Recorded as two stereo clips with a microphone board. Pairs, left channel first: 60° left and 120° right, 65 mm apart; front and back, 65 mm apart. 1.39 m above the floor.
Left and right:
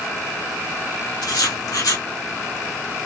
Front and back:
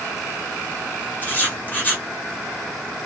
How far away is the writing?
About 1.6 m.